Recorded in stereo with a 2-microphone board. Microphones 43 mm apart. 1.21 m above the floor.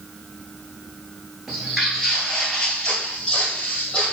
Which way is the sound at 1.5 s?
5° right (ahead or behind).